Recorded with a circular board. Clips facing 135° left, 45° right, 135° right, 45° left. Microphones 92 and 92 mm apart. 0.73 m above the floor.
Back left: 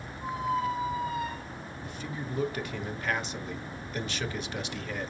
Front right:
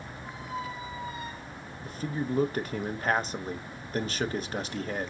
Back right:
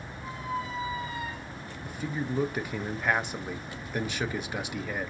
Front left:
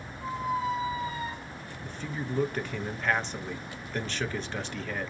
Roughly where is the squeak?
Left.